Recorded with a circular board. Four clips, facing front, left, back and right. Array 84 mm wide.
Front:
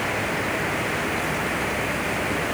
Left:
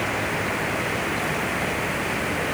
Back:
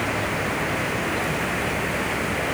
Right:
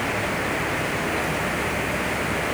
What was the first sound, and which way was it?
Only background noise.